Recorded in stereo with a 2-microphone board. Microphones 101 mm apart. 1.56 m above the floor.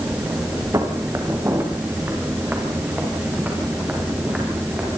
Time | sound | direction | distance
0.7 | footsteps | 35° right (ahead or behind) | 4.5 m